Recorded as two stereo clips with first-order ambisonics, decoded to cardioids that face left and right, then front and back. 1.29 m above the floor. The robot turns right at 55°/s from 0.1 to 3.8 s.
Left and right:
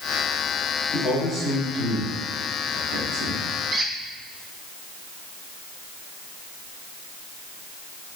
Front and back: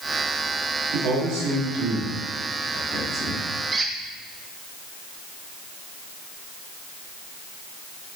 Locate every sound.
0.9 s a man speaking: 145° left, 4 m; by 3.4 s 75° right, 4 m
3.7 s a squeak: 130° right, 0.8 m; by 3.9 s 125° right, 0.8 m